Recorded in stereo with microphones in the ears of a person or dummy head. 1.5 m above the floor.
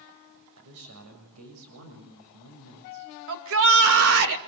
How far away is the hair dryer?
I don't hear a hair dryer.